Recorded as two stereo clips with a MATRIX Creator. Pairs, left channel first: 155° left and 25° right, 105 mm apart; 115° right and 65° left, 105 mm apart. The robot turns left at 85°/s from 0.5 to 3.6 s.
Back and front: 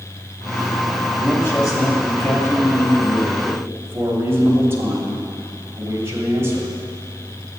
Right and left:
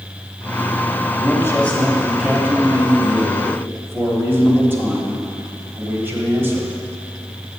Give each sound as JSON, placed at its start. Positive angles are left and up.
{"t": 1.2, "sound": "a man speaking", "azimuth_deg": -135, "distance_m": 1.2}